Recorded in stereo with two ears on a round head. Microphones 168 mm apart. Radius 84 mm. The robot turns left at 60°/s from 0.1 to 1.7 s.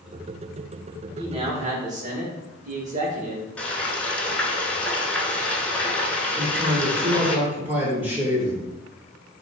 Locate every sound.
1.2 s a man speaking: 30° right, 1.3 m; by 3.5 s 60° right, 1.3 m
3.6 s frying: 5° left (ahead or behind), 0.8 m
6.4 s a man speaking: 10° right (ahead or behind), 1.7 m